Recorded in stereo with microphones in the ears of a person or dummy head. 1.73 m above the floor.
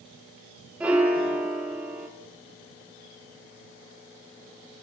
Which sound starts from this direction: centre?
A piano, at 0.8 s.